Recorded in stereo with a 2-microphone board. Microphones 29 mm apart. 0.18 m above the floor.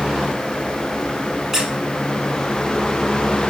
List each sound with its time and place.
1.5 s a squeak: 15° right (ahead or behind), 0.9 m